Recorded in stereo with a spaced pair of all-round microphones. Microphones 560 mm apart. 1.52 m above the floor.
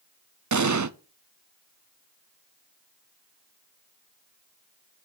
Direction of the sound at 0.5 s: 35° right (ahead or behind).